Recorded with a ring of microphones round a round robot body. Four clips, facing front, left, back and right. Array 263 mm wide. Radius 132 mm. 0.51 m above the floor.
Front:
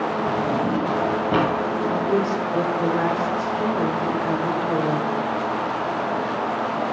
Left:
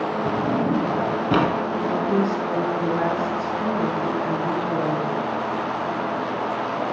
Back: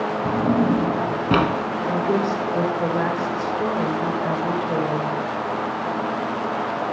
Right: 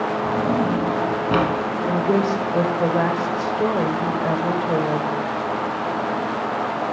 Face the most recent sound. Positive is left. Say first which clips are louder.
# right 3 dB, back 1 dB
turn(degrees=-95)